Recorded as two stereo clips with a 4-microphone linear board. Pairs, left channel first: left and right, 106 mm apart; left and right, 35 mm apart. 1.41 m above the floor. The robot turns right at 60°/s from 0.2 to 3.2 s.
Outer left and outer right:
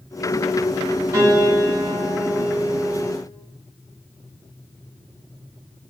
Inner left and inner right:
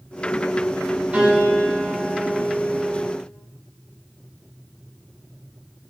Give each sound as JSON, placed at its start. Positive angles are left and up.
{"t": 1.1, "sound": "a piano", "azimuth_deg": -115, "distance_m": 1.3}